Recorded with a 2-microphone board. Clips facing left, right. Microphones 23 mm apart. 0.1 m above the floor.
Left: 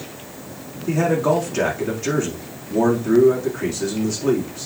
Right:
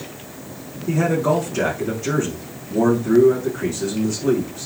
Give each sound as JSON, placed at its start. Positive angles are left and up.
{"t": 0.9, "sound": "a man speaking", "side_deg": 25, "distance_m": 5.0}